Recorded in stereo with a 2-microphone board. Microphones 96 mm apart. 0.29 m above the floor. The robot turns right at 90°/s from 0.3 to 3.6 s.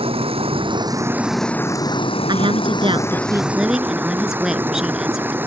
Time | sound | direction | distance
0.0 | running water | 95° right | ?
2.3 | a woman speaking | 125° right | ?